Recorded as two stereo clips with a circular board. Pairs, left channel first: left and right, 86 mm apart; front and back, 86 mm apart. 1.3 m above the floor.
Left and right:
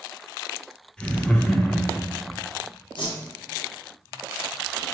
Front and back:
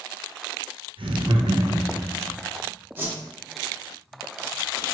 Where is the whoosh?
115° left, 1.3 m.